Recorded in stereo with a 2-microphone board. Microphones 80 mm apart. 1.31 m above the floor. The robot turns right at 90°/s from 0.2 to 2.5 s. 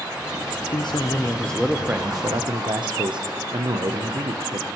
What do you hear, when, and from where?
0.7 s a man speaking: 95° left, 0.8 m; by 4.7 s 100° right, 0.8 m